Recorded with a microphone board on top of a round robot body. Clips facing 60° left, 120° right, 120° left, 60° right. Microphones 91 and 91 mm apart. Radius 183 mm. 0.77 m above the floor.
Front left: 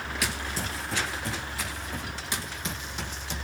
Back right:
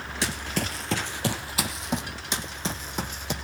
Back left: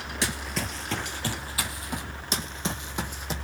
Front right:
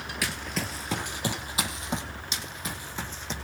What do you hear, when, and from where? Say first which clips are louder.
0.2 s running footsteps: back right 5 dB, back left 2 dB; straight behind, 0.8 m; by 2.0 s 130° right, 2.5 m
2.3 s running footsteps: back right 5 dB, back left 8 dB; 170° left, 1.5 m; by 3.3 s 155° right, 1.7 m